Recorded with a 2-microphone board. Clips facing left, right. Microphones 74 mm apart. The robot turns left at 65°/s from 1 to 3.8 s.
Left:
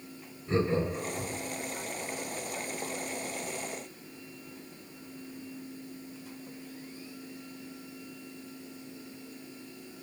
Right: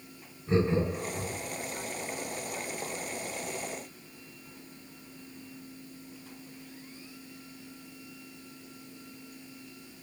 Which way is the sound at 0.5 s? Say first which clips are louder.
Right 1 dB; 20° right (ahead or behind).